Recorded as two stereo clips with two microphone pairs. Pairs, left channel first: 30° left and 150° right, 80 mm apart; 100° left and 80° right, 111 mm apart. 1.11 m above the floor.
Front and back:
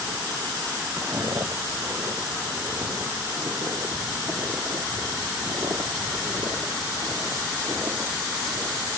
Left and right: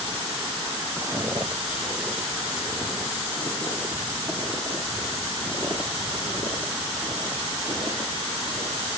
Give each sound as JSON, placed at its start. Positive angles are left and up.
{"t": 1.0, "sound": "footsteps", "azimuth_deg": -135, "distance_m": 1.4}